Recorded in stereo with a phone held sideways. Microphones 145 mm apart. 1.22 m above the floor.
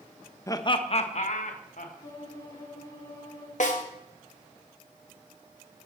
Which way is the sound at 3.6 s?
60° left (ahead or behind).